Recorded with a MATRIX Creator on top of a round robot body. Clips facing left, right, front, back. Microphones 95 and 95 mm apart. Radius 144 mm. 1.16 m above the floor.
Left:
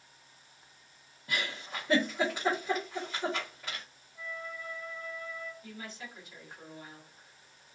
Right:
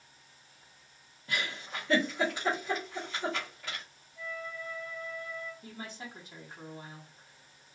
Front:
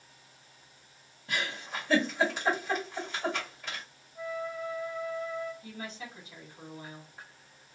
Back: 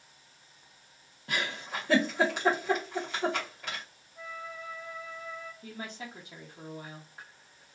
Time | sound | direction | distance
1.3 | a giggle | 160° left | 0.6 m
4.2 | a flute | 85° left | 1.0 m
5.6 | a woman speaking | 150° right | 1.0 m